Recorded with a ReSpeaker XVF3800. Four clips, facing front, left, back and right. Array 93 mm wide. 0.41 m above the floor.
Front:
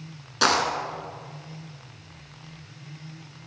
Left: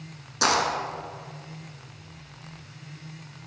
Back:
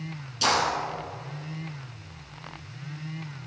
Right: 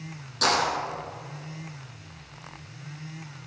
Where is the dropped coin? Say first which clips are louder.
Left 1 dB, front 2 dB; 15° left, 2 m.